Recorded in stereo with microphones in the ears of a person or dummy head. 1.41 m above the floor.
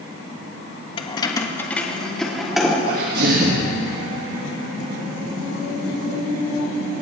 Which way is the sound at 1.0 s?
35° left (ahead or behind).